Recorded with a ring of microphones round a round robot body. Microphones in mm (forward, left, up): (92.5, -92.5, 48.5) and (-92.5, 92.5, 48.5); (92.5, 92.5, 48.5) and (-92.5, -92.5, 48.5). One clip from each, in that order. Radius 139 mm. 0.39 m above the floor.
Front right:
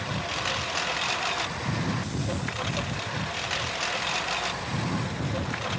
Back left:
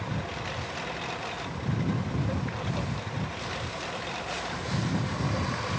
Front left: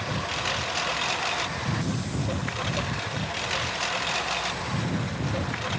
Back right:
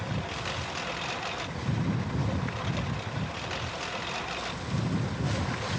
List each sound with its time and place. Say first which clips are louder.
0.0 s a lawn mower: front right 5 dB, front left 6 dB; 15° right; by 5.8 s 10° right